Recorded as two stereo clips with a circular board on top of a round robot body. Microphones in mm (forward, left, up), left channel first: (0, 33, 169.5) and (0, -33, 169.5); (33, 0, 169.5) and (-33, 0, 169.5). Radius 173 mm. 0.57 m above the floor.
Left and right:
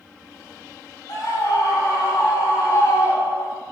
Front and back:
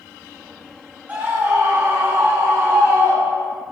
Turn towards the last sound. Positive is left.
turn(degrees=130)